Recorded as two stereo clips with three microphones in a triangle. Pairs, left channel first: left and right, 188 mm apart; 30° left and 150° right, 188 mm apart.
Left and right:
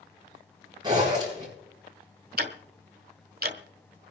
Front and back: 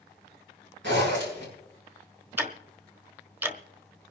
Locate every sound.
0.8 s a zipper: 155° right, 8 m
2.4 s ticking: 70° right, 1.2 m